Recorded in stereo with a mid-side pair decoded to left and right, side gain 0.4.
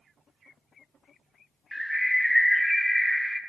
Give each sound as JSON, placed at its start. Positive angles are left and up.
{"t": 1.7, "sound": "a bird", "azimuth_deg": -5, "distance_m": 0.7}